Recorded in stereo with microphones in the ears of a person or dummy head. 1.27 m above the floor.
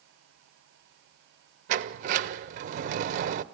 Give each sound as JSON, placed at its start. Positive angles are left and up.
{"t": 1.7, "sound": "a sliding door", "side_deg": -45, "distance_m": 0.6}